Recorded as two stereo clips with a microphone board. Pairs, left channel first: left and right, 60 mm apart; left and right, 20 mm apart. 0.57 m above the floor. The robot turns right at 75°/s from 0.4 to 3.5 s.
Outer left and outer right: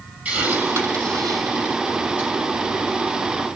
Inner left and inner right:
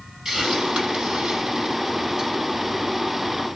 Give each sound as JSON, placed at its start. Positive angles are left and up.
{"t": 0.2, "sound": "a hiss", "side_deg": -20, "distance_m": 6.0}